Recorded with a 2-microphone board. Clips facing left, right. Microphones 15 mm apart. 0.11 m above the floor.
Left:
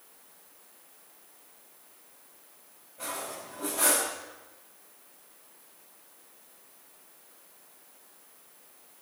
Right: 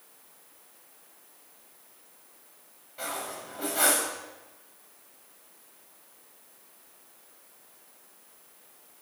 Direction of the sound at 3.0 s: 65° right (ahead or behind).